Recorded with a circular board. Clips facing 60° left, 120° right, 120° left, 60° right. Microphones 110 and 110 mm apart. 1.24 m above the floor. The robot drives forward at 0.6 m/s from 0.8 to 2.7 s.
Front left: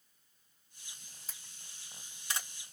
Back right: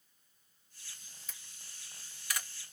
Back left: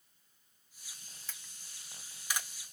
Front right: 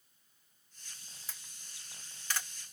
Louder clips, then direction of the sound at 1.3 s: Even, even; 15° left.